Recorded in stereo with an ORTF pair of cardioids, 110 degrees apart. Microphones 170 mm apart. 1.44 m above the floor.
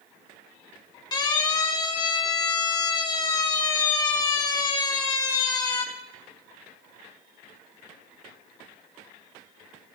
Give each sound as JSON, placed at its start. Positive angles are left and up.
{"t": 1.1, "sound": "a siren", "azimuth_deg": 25, "distance_m": 2.5}